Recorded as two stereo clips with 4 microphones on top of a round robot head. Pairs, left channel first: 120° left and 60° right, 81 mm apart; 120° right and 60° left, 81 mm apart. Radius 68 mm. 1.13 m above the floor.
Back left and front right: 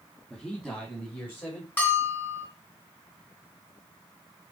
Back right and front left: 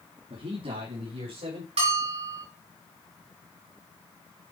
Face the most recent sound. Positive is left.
turn(degrees=55)